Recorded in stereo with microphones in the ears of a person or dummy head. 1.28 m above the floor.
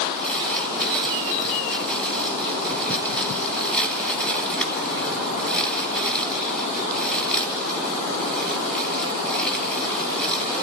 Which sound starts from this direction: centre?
Crumpling, at 0.2 s.